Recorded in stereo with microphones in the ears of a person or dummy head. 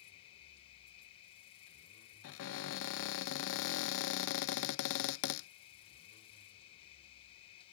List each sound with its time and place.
0.0 s an insect: 35° left (ahead or behind)
2.2 s a cupboard door: 65° left (ahead or behind)